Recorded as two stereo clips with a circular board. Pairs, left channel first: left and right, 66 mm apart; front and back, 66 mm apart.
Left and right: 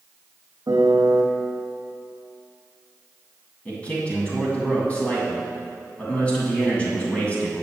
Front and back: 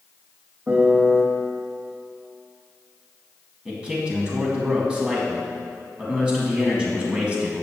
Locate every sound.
0.7 s a piano: 115° right, 1.3 m
3.6 s a man speaking: 125° left, 1.8 m